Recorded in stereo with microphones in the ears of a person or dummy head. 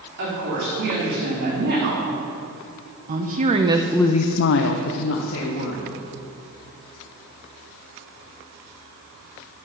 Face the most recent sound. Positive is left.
turn(degrees=75)  # may be behind; listen again after turning